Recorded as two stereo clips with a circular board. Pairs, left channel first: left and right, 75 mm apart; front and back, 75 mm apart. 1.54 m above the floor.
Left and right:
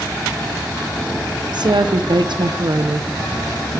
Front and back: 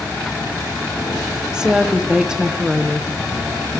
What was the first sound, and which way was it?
A woman speaking, 100° right.